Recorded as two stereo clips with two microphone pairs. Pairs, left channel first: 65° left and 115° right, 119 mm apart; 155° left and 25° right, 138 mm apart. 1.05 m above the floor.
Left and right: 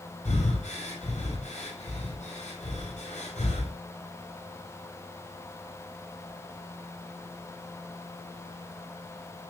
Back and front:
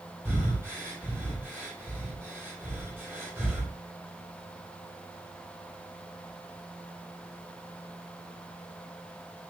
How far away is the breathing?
About 6.5 m.